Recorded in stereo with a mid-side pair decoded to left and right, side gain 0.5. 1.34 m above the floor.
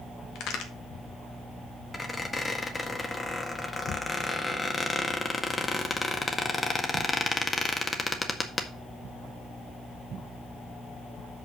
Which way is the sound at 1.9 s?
20° left.